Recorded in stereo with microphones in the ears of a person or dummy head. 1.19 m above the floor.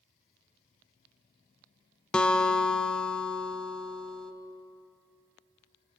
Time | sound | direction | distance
2.1 | a guitar | 5° left (ahead or behind) | 0.6 m